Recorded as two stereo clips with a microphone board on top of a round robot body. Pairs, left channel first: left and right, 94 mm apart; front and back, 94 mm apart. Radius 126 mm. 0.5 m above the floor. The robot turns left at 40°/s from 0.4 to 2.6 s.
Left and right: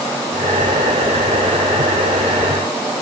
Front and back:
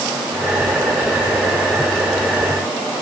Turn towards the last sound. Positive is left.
No sound to turn to.